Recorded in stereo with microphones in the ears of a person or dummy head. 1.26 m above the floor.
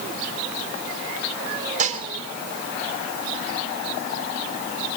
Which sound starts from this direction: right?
Dishes clattering, at 1.8 s.